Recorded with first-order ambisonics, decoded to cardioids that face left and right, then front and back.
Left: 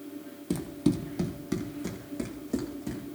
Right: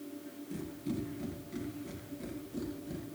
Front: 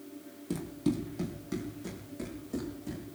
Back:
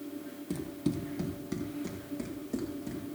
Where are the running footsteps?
85° left, 2.5 m; by 3.0 s 100° left, 4.5 m.